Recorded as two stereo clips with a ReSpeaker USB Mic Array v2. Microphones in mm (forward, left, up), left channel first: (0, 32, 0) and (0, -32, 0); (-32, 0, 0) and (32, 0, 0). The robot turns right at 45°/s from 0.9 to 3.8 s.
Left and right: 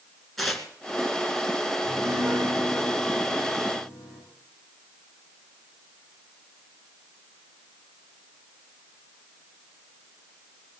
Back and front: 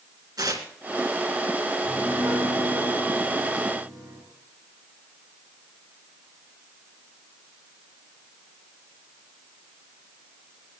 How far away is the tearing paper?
About 2 m.